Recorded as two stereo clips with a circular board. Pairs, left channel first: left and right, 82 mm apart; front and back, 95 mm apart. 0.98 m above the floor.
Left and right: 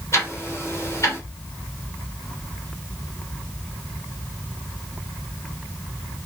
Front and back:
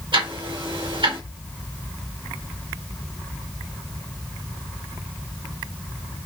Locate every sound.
0.1 s ticking: 145° left, 2.5 m